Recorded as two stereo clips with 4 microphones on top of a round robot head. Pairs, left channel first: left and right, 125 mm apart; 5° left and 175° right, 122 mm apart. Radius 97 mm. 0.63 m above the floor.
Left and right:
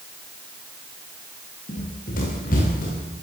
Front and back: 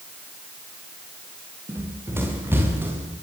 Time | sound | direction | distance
1.7 | running footsteps | 115° left | 9.5 m